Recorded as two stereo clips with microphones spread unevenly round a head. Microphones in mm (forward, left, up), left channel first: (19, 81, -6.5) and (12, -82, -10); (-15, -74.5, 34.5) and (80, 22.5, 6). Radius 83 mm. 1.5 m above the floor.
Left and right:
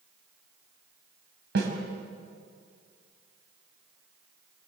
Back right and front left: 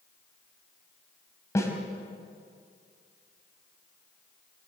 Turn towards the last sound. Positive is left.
turn(degrees=-70)